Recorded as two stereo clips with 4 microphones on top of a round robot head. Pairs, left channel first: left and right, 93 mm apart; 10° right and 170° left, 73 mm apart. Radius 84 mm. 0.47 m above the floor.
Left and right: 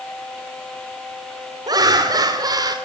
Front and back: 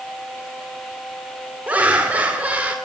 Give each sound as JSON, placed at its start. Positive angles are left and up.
{"t": 1.7, "sound": "laughter", "azimuth_deg": -125, "distance_m": 1.7}